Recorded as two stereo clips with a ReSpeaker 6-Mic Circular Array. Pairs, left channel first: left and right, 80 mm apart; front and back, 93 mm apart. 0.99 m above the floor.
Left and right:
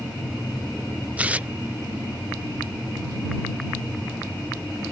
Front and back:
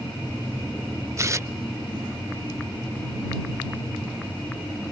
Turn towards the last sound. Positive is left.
turn(degrees=-150)